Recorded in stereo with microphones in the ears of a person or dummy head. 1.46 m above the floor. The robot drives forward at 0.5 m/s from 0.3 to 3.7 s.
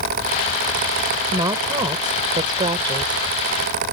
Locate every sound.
1.3 s a woman speaking: 20° right (ahead or behind); by 3.2 s 25° right (ahead or behind)